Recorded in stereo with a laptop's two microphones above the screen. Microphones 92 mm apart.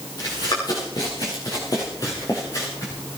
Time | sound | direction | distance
0.2 | running footsteps | 55° left (ahead or behind) | 6 m